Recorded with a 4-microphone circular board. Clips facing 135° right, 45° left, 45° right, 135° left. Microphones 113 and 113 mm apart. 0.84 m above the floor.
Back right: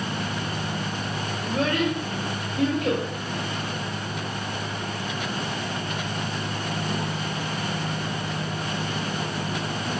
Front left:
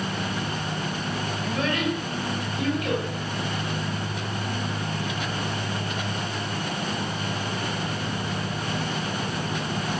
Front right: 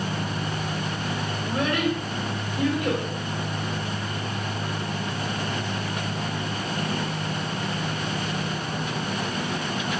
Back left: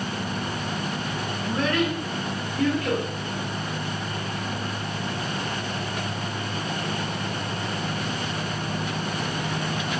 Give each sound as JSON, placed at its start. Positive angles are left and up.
{"t": 1.4, "sound": "a child speaking", "azimuth_deg": -120, "distance_m": 1.3}